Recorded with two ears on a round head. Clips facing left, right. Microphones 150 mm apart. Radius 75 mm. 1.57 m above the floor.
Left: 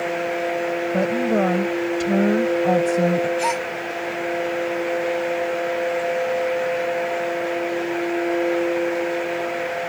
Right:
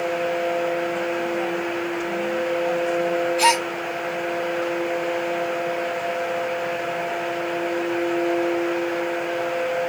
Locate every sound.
0.9 s a woman speaking: 80° left
3.4 s a gasp: 70° right (ahead or behind)